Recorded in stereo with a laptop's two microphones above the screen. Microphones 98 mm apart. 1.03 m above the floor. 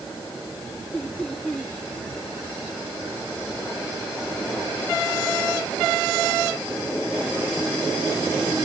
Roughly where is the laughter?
Centre.